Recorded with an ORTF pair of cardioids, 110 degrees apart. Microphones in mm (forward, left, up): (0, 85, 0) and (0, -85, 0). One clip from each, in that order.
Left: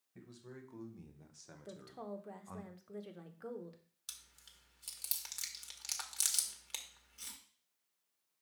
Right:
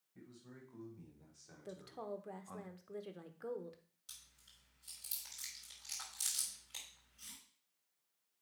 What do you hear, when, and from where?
0.1 s a man speaking: 45° left, 2 m; by 2.6 s 5° left, 0.8 m
1.6 s a woman speaking: 5° right, 0.9 m
4.1 s chewing: 70° left, 1.7 m